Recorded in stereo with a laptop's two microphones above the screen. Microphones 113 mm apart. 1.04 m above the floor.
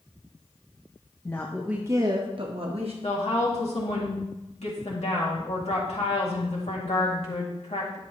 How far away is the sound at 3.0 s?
About 2 m.